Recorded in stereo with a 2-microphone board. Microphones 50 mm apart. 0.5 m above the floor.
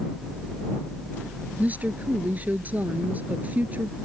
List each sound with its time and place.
1.6 s a woman speaking: 30° right (ahead or behind)